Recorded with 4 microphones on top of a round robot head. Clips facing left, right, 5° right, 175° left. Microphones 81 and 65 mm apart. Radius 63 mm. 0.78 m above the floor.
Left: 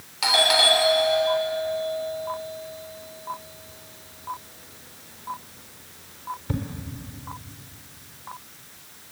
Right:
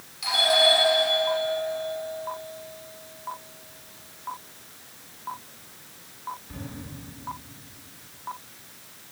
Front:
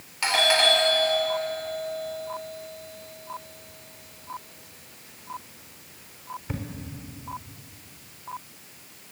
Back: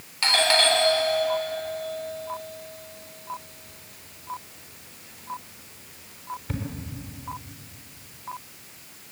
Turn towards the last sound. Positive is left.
turn(degrees=75)